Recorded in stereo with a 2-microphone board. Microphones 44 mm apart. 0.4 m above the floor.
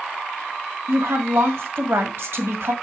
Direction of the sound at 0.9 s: 65° right (ahead or behind).